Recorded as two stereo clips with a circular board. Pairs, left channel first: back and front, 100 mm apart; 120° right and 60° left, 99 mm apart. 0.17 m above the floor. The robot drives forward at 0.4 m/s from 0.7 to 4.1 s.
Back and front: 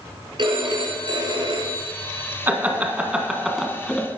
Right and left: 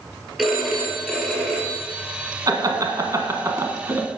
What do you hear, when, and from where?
0.4 s a phone ringing: 25° right, 2.5 m; by 2.4 s 35° right, 1.8 m
2.5 s laughter: 55° left, 1.3 m; by 4.1 s 105° left, 1.2 m